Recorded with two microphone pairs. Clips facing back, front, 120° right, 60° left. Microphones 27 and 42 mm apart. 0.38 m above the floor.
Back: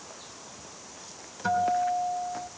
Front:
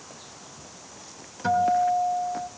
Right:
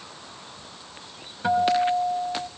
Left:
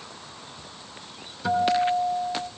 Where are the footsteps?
No footsteps in this recording.